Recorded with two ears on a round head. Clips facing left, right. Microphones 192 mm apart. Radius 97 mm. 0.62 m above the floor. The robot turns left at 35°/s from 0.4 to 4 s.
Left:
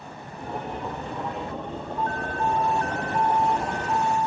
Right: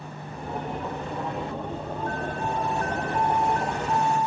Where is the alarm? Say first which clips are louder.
Left 4 dB; 70° left, 3 m; by 4.3 s straight ahead, 3 m.